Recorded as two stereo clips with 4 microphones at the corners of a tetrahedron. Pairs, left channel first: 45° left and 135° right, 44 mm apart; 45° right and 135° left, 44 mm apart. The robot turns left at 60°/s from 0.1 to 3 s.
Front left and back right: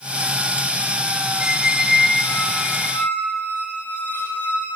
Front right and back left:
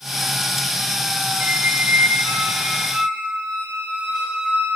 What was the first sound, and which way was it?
A squeak, 160° left.